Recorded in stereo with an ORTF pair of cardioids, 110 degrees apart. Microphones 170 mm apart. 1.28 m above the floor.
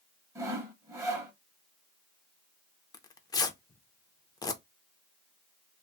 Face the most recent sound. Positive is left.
turn(degrees=25)